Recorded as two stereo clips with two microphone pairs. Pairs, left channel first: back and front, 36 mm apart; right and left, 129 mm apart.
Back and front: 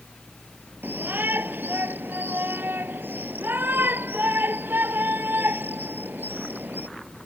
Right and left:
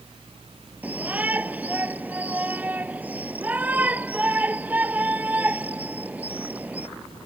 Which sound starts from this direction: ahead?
A shout, at 0.8 s.